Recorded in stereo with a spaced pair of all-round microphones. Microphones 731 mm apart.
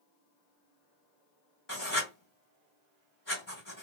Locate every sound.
1.7 s writing: 25° left (ahead or behind), 1.7 m